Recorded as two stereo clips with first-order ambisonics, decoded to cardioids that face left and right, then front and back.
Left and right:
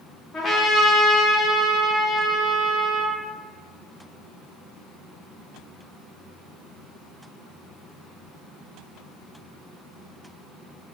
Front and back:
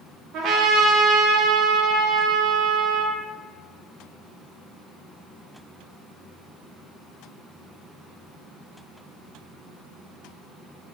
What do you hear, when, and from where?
0.3 s a trumpet: 155° left, 0.5 m